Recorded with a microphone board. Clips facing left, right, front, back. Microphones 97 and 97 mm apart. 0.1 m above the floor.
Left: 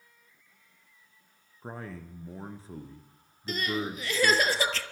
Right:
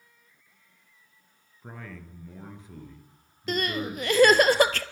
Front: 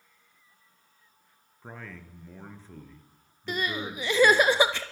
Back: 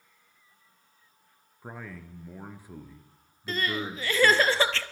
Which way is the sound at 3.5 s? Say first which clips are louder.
Right 3 dB, back 1 dB; 70° right.